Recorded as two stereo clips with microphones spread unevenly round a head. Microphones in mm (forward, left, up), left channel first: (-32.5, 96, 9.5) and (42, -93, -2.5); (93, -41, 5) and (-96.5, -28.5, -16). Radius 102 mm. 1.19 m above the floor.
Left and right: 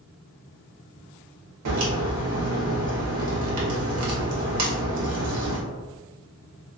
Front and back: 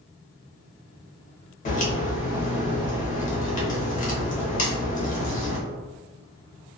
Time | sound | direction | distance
1.6 | a crack | 55° right | 0.9 m